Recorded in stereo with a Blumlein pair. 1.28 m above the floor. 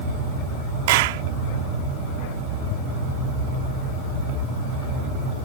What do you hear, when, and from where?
0.9 s a clap: 50° right